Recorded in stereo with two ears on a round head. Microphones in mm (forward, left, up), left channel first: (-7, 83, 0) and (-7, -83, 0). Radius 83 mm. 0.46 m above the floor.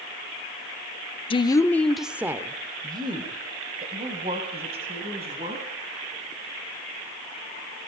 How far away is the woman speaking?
About 0.8 m.